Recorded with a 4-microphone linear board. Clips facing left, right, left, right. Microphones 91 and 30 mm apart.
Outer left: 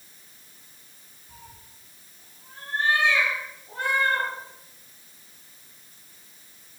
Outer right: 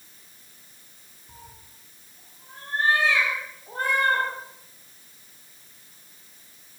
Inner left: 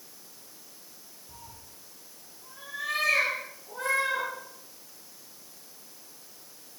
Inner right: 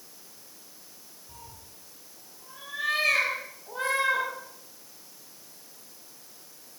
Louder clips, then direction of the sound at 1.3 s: Outer right 1 dB, inner right 1 dB; 25° right (ahead or behind).